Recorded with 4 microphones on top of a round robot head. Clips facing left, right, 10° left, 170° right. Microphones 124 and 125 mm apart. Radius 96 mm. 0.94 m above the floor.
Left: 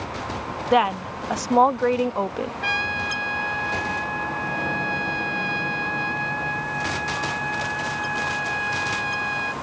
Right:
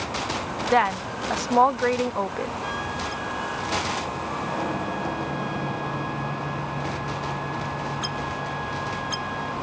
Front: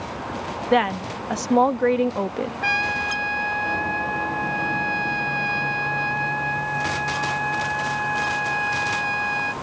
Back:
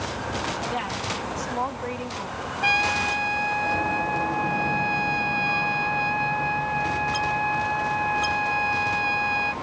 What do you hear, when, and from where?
0.7 s a woman speaking: 15° left
2.6 s a trumpet: 120° left